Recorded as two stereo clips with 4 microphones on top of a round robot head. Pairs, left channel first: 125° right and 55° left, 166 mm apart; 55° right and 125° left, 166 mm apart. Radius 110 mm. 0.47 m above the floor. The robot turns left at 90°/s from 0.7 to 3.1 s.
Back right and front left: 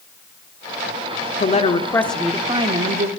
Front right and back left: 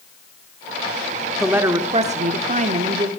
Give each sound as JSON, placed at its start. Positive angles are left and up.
{"t": 1.4, "sound": "a woman speaking", "azimuth_deg": -145, "distance_m": 1.0}